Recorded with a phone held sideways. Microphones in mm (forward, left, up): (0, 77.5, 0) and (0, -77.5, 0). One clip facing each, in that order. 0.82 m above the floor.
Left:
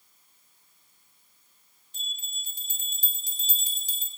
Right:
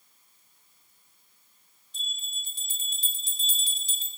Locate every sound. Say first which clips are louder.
1.9 s a bell: right 1 dB; 45° left (ahead or behind), 3 m